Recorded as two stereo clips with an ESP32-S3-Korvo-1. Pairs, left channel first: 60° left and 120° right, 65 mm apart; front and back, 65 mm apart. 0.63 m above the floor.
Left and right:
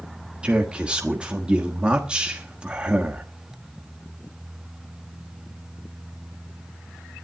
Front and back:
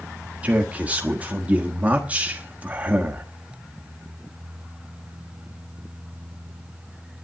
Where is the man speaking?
165° right, 1.3 m.